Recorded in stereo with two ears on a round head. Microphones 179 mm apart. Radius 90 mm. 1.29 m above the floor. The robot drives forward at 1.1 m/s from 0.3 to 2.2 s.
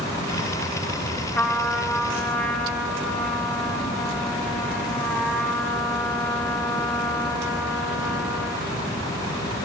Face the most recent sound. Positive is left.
turn(degrees=5)  # may be behind; listen again after turning